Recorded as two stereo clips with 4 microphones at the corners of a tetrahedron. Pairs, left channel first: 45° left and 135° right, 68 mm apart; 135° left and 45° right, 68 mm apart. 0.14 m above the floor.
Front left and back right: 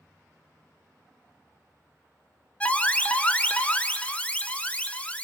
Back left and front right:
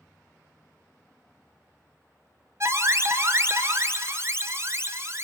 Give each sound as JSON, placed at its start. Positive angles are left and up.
{"t": 2.6, "sound": "an alarm", "azimuth_deg": -20, "distance_m": 1.0}